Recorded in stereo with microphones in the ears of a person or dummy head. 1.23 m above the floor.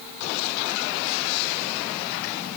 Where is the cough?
I don't hear a cough.